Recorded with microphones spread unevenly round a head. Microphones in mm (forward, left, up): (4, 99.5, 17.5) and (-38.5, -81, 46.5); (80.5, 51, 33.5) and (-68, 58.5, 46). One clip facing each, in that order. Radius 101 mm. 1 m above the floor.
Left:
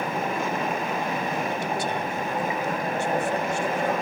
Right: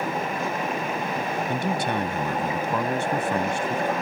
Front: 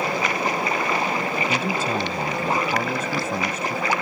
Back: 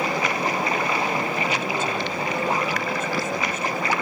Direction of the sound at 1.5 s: 65° right.